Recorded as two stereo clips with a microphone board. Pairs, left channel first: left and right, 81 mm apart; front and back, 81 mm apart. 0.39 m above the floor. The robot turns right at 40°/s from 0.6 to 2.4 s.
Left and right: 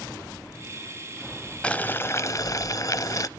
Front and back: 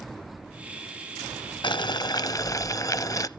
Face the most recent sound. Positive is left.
turn(degrees=45)